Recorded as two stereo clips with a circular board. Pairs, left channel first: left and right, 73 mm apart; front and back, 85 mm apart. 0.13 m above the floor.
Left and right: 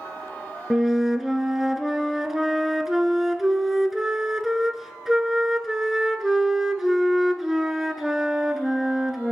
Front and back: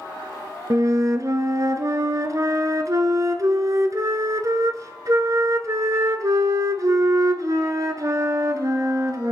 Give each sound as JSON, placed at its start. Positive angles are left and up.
{"t": 0.7, "sound": "a flute", "azimuth_deg": -175, "distance_m": 0.8}